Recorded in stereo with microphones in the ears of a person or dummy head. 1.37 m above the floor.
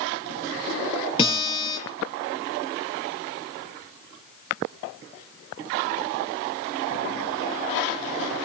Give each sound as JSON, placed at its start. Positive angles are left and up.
{"t": 1.2, "sound": "a guitar", "side_deg": 25, "distance_m": 8.0}